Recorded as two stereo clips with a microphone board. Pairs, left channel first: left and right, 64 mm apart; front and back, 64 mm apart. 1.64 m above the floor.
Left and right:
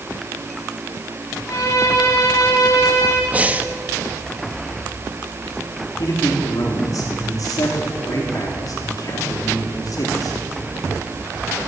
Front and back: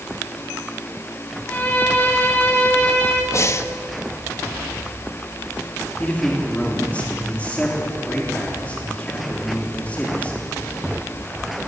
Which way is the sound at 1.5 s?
60° left.